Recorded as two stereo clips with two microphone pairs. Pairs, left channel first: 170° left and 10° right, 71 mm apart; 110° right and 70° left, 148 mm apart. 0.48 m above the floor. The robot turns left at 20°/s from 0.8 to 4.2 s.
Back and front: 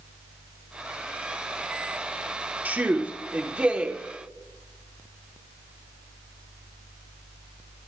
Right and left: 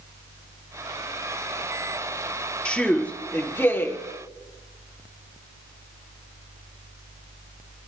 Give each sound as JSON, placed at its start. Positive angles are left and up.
{"t": 2.6, "sound": "a man speaking", "azimuth_deg": -35, "distance_m": 1.4}